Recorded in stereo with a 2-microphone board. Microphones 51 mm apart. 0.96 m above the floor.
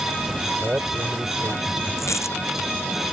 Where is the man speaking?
40° right (ahead or behind).